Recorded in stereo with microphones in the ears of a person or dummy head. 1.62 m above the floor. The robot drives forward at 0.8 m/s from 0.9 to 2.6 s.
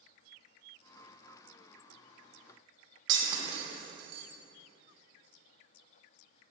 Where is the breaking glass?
30° right (ahead or behind), 1.3 m.